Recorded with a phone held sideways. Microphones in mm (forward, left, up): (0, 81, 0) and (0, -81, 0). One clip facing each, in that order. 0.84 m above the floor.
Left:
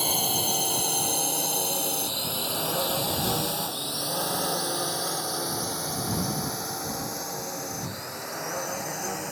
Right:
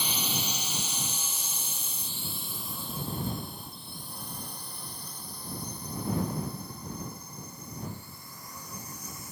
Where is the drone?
50° left (ahead or behind); by 9.3 s 70° left (ahead or behind).